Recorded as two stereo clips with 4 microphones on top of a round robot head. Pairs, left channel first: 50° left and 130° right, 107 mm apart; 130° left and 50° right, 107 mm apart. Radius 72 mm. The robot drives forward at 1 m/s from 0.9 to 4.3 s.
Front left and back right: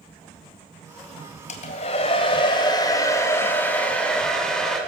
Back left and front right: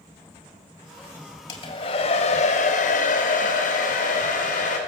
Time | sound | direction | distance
1.5 | a hair dryer | 70° left | 2 m